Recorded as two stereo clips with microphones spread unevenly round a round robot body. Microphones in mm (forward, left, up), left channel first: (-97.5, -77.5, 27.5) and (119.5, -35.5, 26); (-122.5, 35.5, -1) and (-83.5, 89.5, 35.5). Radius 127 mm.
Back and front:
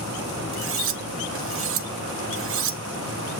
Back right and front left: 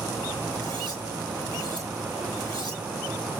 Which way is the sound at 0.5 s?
15° right.